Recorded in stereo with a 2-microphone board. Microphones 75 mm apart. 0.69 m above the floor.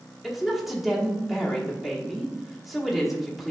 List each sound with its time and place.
0.2 s a woman speaking: centre (ahead or behind), 1.3 m